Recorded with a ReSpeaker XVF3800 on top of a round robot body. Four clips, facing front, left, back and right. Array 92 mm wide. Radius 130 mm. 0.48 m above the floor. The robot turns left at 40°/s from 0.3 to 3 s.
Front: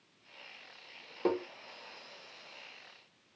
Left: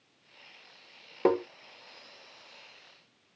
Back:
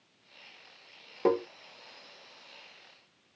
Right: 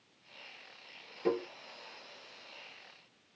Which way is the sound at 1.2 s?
105° left.